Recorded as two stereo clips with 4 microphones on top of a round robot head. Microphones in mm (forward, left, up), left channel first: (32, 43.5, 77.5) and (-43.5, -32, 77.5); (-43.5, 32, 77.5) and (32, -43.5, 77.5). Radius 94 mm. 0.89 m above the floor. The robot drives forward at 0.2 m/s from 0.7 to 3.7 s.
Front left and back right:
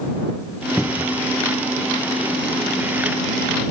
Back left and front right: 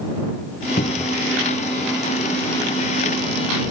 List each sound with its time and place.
0.8 s a cupboard door: 130° left